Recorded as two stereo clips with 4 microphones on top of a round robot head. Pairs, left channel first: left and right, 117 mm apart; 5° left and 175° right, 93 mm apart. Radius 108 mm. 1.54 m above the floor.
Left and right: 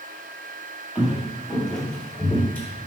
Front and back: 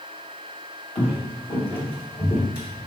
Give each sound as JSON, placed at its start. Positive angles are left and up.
{"t": 0.9, "sound": "footsteps", "azimuth_deg": -15, "distance_m": 1.8}